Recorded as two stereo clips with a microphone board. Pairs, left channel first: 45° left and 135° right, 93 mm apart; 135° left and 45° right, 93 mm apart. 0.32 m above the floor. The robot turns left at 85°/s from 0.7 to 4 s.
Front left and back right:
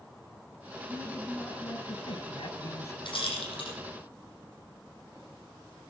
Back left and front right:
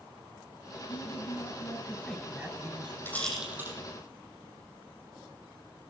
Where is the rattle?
70° left, 5 m; by 3.7 s 15° left, 5 m.